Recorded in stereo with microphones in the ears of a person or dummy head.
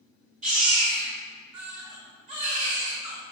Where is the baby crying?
40° right (ahead or behind), 2 m.